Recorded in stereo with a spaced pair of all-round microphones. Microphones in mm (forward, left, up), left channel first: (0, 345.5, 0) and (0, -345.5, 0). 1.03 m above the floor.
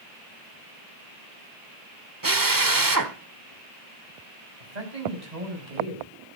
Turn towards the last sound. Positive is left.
turn(degrees=-75)  # may be behind; listen again after turning